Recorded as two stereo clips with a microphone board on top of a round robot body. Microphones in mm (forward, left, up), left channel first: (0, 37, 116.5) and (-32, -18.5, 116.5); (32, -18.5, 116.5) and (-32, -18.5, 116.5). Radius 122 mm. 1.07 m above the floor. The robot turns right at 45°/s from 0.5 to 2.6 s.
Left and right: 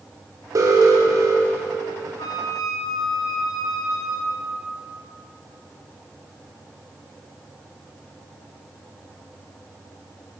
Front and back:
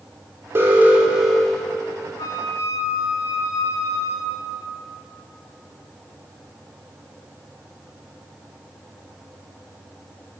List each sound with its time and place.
0.6 s an alarm: 135° right, 1.5 m; by 1.7 s 80° right, 1.5 m
2.2 s a flute: 25° left, 0.8 m; by 4.6 s 45° left, 0.8 m